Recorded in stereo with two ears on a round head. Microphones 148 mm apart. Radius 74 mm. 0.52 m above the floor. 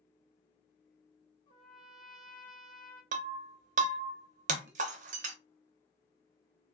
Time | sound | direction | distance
1.5 | a trumpet | 30° left (ahead or behind) | 1.0 m
3.1 | breaking glass | 50° right (ahead or behind) | 0.5 m